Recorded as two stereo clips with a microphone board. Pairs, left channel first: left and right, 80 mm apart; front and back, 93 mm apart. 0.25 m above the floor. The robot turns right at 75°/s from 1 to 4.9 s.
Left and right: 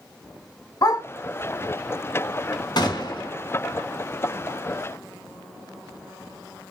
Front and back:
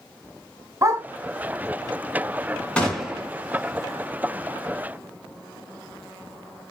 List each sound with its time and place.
0.8 s a dog barking: 130° left, 0.8 m
2.8 s a gunshot: 75° left, 1.3 m; by 3.3 s 115° left, 1.3 m